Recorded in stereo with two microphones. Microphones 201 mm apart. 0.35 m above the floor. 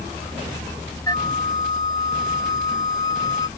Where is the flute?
20° left (ahead or behind).